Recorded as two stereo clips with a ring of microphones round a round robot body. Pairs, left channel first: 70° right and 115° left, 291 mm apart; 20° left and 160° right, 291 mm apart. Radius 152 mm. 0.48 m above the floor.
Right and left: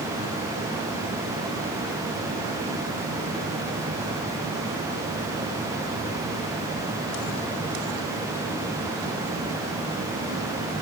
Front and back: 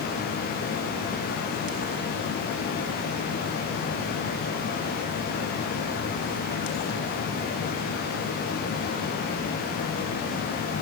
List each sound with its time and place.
Only background noise.